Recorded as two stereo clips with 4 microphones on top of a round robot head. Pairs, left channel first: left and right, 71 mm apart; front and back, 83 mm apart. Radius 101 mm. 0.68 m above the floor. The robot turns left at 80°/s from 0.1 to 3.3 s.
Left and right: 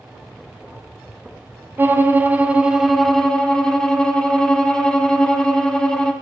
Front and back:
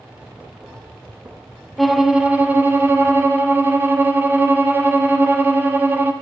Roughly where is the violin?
Right.